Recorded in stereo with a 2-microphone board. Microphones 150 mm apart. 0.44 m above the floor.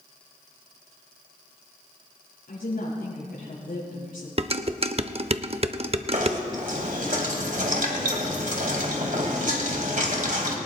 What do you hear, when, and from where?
2.5 s a woman speaking: 80° left, 6.5 m
4.4 s dishes clattering: 45° right (ahead or behind), 0.6 m
6.1 s knocking: 65° right (ahead or behind), 2 m